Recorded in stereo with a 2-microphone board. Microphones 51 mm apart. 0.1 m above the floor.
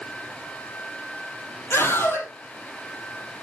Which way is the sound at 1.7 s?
55° left (ahead or behind).